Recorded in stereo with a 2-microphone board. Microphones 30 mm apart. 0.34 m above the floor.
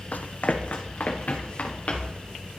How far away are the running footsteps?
About 0.7 m.